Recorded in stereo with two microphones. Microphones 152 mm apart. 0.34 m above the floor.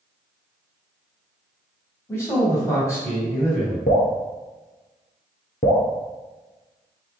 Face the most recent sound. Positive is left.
turn(degrees=70)  # may be behind; listen again after turning